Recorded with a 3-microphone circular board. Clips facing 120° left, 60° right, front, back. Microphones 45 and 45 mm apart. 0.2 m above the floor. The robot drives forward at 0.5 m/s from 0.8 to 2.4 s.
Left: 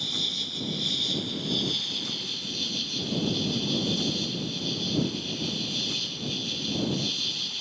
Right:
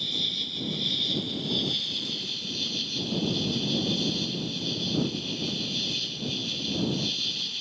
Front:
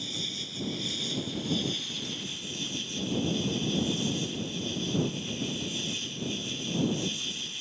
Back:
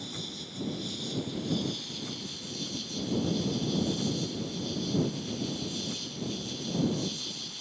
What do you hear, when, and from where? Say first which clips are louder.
0.0 s an insect: even, front 4 dB; 20° left; by 7.6 s 25° left